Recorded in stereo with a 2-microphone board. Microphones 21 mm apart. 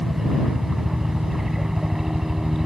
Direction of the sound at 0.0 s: 20° right (ahead or behind).